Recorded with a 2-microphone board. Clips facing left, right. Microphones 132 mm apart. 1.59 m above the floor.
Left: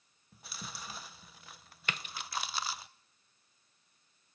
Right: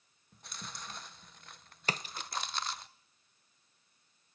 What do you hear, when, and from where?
0.3 s chewing: 5° left (ahead or behind), 0.7 m
1.9 s a splash: 35° right (ahead or behind), 0.6 m